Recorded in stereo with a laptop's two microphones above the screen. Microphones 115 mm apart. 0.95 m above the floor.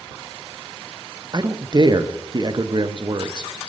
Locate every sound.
1.3 s a man speaking: 40° right (ahead or behind), 0.6 m